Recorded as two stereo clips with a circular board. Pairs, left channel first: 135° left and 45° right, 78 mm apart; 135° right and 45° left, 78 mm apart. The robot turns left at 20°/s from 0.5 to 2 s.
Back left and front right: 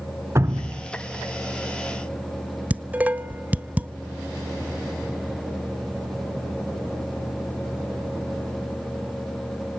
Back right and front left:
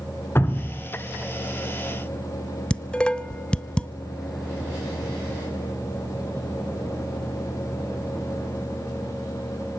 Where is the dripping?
85° right, 2 m; by 0.8 s 90° right, 2 m.